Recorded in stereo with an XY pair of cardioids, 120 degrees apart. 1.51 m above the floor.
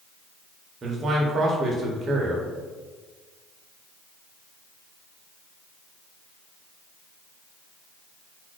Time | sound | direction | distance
0.8 | a man speaking | 35° right | 0.8 m